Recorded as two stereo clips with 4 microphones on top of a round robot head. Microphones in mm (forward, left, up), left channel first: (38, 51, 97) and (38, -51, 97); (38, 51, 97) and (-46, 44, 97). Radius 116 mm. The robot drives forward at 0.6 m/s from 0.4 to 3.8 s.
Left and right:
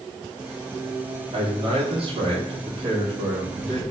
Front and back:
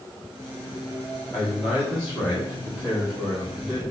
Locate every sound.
1.3 s a man speaking: 65° right, 2 m; by 3.8 s 110° right, 2 m